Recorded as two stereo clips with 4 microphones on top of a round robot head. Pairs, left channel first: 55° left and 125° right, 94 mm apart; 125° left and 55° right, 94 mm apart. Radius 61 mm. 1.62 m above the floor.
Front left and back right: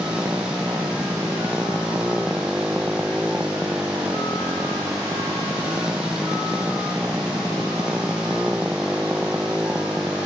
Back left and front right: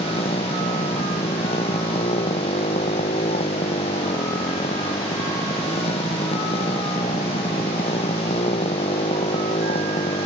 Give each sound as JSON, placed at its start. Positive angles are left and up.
{"t": 0.0, "sound": "a motorcycle", "azimuth_deg": 150}